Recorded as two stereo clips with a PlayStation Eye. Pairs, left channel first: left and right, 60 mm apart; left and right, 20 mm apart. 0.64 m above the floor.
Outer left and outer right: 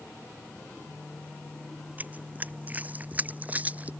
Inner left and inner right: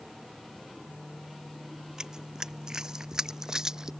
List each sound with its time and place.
2.0 s running footsteps: 25° right (ahead or behind)